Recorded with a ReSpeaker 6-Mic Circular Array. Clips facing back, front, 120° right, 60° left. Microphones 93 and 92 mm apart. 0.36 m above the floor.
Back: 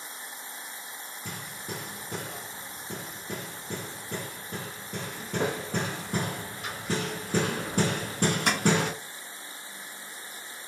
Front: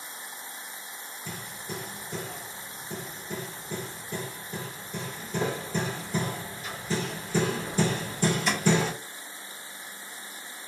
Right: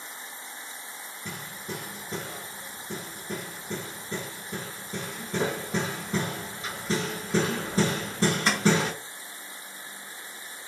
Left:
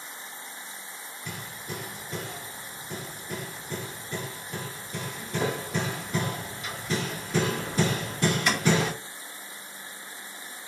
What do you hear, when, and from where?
1.2 s hammering: 175° right, 1.5 m